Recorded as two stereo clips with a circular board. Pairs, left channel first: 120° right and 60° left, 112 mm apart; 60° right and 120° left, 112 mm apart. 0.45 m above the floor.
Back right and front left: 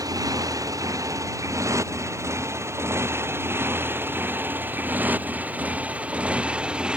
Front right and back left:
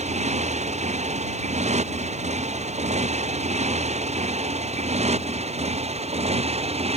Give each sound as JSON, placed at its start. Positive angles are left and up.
{"t": 0.0, "sound": "a motorcycle", "azimuth_deg": 120}